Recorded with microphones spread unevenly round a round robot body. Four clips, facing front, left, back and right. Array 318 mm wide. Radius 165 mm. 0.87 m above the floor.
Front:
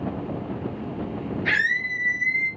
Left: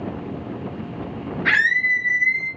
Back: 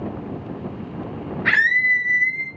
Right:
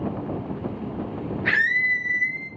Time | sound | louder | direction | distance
1.4 | a scream | left 4 dB, back 8 dB | 150° left | 2 m